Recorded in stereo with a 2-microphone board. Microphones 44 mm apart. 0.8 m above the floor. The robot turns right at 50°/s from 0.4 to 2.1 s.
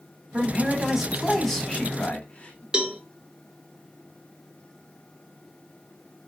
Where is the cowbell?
15° right (ahead or behind), 0.6 m.